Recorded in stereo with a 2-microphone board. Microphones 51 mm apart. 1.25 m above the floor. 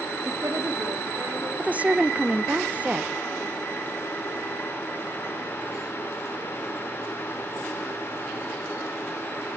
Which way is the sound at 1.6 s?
25° right (ahead or behind).